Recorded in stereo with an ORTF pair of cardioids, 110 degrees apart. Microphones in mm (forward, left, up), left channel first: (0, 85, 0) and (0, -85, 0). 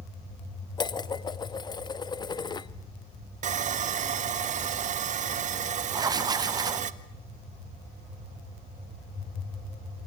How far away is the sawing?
About 1.5 m.